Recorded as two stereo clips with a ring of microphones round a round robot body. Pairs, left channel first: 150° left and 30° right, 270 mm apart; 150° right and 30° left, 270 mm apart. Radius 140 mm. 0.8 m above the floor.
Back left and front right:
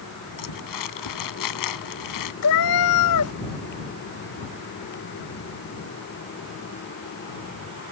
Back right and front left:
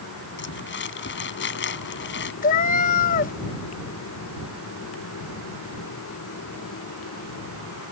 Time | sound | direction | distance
0.4 | crumpling | 160° left | ?
2.4 | a cat meowing | 160° left | ?